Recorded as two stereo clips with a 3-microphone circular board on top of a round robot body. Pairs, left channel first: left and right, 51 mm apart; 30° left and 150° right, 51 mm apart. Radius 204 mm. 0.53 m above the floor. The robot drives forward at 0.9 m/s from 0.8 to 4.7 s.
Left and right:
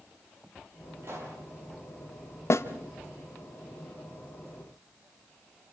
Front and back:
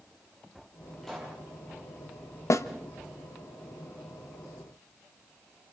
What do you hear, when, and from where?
1.0 s a pop: 55° right, 8.5 m
2.5 s a snare drum: 55° left, 1.4 m; by 2.6 s 60° left, 1.4 m